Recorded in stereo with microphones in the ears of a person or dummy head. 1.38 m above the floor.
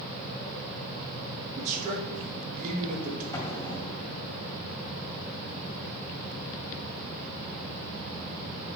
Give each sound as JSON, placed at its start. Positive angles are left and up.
{"t": 1.6, "sound": "a man speaking", "side_deg": -45, "distance_m": 2.0}
{"t": 3.3, "sound": "an explosion", "side_deg": 15, "distance_m": 2.5}